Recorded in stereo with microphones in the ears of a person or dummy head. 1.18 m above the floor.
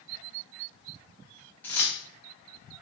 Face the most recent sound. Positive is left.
turn(degrees=10)  # may be behind; listen again after turning